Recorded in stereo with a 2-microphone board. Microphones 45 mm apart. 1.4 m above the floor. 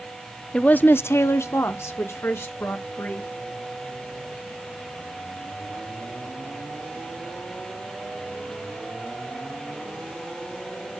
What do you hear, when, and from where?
0.5 s a woman speaking: 25° left (ahead or behind), 0.6 m; by 3.3 s 65° left (ahead or behind), 2.5 m